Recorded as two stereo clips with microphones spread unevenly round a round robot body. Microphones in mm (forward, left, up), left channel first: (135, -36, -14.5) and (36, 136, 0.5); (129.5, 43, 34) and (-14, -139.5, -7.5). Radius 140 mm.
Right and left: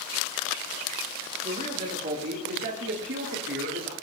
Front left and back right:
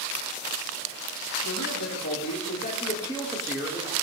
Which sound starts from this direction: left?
A man speaking, at 1.4 s.